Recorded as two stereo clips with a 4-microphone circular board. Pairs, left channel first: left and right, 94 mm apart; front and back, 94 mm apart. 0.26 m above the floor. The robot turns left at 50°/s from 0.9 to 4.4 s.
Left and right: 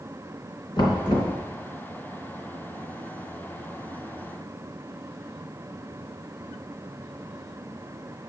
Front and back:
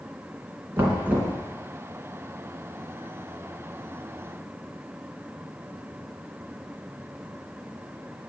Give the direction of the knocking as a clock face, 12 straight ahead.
8 o'clock.